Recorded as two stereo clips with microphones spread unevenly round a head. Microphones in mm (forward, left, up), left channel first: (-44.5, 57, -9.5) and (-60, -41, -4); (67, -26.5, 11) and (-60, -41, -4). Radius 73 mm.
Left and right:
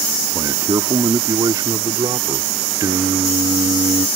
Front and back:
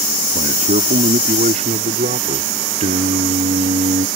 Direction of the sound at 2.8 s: 145° right.